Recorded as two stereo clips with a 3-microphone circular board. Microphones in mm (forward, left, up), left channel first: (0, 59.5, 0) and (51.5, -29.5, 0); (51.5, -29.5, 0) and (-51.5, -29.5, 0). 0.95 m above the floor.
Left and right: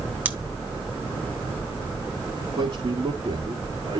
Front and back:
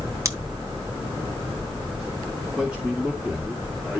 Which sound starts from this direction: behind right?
Scissors, at 0.2 s.